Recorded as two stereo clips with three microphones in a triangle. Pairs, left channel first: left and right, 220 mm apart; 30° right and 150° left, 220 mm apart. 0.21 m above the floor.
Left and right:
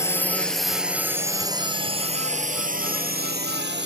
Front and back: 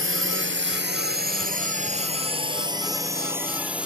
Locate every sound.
0.0 s a drone: 165° left; by 3.9 s 125° right